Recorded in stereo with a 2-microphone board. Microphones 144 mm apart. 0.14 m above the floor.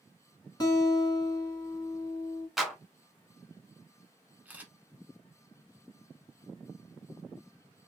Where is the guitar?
35° left (ahead or behind), 1.4 m.